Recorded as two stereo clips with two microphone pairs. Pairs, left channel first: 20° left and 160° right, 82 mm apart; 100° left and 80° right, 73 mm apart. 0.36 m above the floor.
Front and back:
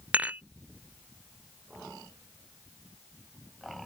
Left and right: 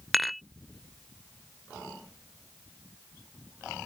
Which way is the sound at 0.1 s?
160° right.